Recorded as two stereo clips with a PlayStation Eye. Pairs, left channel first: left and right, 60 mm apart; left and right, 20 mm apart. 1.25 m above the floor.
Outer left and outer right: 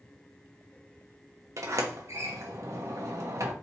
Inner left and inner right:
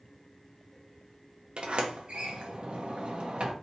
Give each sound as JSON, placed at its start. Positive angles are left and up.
{"t": 1.6, "sound": "a sliding door", "side_deg": -55, "distance_m": 0.9}